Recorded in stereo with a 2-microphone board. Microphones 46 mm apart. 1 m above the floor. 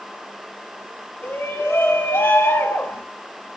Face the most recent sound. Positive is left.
turn(degrees=85)